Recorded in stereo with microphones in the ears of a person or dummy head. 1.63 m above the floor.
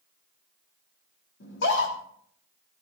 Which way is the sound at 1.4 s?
75° left (ahead or behind).